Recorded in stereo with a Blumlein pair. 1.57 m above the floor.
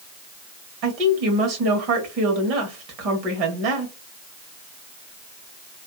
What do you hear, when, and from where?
0.8 s a woman speaking: 40° right, 1.4 m